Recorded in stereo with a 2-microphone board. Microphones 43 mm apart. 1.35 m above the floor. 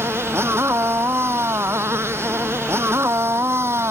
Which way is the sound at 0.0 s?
70° right (ahead or behind).